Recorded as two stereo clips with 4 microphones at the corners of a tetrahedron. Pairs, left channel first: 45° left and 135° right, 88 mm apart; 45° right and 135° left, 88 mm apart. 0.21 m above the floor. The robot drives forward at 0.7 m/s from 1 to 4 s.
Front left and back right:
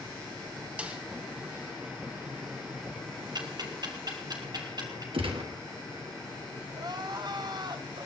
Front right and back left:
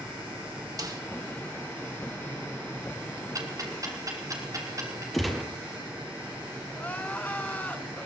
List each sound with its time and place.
0.8 s a snare drum: 155° left, 1.8 m
3.4 s ticking: 175° right, 1.9 m
5.1 s a gunshot: 135° right, 2.5 m
6.7 s crying: 115° right, 1.2 m